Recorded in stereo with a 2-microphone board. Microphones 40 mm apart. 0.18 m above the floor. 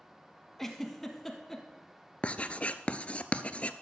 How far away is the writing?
About 0.5 m.